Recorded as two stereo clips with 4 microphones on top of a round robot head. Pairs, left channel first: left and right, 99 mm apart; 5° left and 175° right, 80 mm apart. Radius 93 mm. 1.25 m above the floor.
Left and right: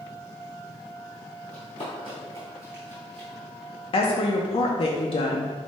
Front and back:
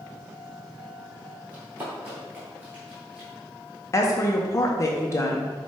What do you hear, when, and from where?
1.5 s running footsteps: 120° left, 1.9 m; by 3.3 s 90° right, 1.4 m
3.9 s a woman speaking: 60° left, 0.6 m